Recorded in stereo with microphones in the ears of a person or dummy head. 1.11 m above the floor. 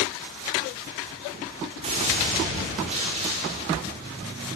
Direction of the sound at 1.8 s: 35° right (ahead or behind).